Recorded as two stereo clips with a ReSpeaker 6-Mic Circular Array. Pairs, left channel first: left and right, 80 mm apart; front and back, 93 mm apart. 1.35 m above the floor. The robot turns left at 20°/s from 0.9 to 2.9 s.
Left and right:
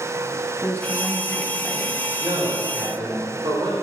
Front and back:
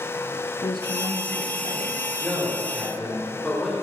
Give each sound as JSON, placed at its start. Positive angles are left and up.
{"t": 0.6, "sound": "a woman speaking", "azimuth_deg": 20, "distance_m": 1.3}
{"t": 2.2, "sound": "a man speaking", "azimuth_deg": -65, "distance_m": 4.0}